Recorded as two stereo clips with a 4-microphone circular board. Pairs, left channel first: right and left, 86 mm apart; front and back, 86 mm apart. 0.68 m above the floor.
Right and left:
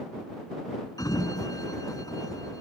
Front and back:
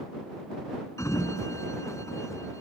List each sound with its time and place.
1.0 s a sliding door: 50° right